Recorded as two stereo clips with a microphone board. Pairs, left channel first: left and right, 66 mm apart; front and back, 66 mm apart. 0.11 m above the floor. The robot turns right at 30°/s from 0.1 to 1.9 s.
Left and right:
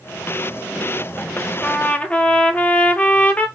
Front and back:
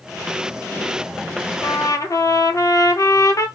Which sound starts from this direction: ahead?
A trumpet, at 1.6 s.